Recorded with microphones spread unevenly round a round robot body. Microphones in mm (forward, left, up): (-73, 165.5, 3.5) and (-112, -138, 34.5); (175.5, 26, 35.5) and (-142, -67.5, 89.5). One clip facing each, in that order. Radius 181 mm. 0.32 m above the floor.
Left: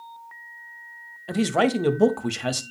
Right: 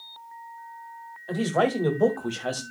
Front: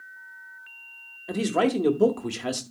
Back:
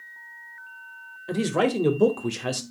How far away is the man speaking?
About 1.6 m.